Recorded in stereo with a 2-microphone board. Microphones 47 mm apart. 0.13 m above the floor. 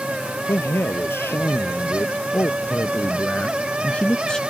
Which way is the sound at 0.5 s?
65° left (ahead or behind).